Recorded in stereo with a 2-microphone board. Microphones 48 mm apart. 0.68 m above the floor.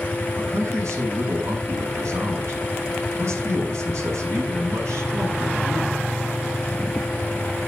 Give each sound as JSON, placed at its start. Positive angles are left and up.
{"t": 0.4, "sound": "a man speaking", "side_deg": -70, "distance_m": 8.0}